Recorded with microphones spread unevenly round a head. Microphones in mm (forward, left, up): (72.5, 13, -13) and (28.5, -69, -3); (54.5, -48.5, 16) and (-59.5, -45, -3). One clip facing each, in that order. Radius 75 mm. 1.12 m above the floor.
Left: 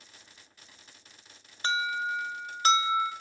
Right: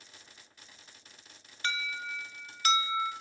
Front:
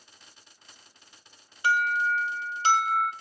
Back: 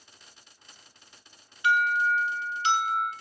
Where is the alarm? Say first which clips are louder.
Left 7 dB, back 1 dB; 45° left, 1.5 m.